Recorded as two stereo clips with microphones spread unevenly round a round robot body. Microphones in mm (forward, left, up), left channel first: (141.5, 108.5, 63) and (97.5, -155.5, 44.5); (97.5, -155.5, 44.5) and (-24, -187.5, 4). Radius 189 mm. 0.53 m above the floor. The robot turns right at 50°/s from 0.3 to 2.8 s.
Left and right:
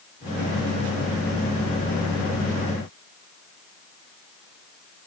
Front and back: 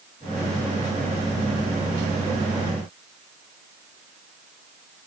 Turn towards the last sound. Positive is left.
No sound to turn to.